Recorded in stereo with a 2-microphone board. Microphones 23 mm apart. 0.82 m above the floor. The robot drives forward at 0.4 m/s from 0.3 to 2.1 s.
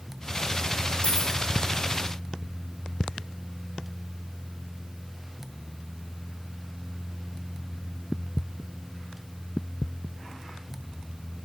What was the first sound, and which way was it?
A dropped coin, 55° left (ahead or behind).